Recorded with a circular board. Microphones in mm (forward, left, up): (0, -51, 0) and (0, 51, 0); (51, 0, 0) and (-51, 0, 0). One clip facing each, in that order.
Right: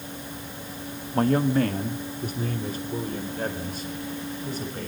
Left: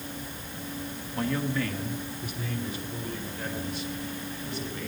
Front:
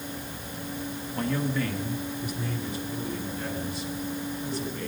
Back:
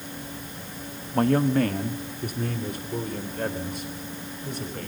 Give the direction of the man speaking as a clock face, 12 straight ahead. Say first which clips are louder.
Right 8 dB, back 8 dB; 5 o'clock.